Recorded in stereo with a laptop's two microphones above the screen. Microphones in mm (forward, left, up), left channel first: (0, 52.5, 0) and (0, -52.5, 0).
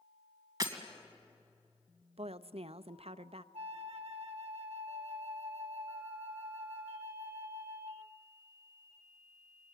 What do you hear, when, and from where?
0.6 s breaking glass: 35° right (ahead or behind), 2 m
2.2 s a woman speaking: 70° right (ahead or behind), 0.6 m
3.5 s a flute: 70° right (ahead or behind), 1.2 m